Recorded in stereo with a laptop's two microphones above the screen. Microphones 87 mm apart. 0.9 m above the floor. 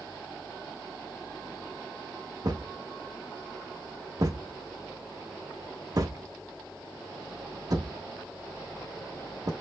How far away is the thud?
About 1.2 m.